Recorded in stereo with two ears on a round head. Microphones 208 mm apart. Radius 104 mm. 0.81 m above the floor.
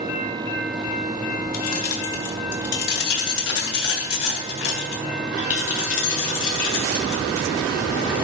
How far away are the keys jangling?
About 1.7 m.